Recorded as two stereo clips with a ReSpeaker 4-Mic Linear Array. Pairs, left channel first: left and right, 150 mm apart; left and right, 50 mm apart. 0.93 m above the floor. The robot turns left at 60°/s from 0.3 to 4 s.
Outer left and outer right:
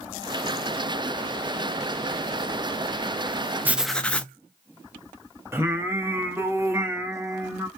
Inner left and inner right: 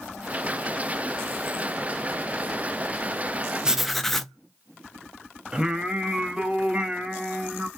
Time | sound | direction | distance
3.6 | writing | 10° right (ahead or behind) | 0.5 m
5.5 | singing | 15° right (ahead or behind) | 0.8 m